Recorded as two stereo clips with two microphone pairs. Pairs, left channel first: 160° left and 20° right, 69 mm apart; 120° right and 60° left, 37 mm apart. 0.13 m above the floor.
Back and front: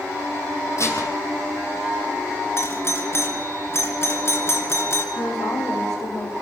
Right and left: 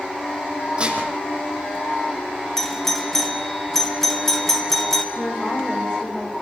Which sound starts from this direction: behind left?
Dishes clattering, at 0.8 s.